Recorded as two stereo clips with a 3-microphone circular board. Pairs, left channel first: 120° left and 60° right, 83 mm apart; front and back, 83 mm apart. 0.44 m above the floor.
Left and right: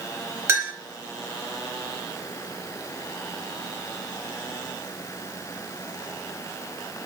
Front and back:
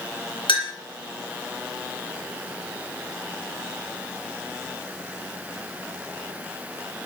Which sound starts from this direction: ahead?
A clink, at 0.5 s.